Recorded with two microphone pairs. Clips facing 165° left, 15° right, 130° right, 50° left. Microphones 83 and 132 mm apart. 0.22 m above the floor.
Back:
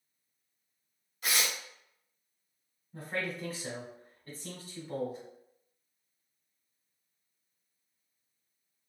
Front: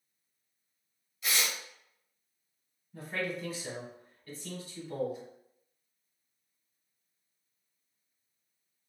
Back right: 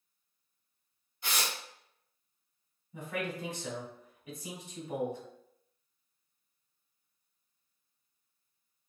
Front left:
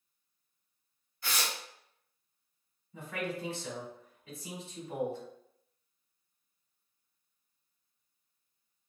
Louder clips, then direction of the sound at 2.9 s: Front 1 dB, even; 170° left.